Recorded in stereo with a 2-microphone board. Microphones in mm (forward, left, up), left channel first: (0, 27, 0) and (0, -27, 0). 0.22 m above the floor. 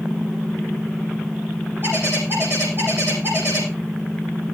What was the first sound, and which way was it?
A bird, 50° right (ahead or behind).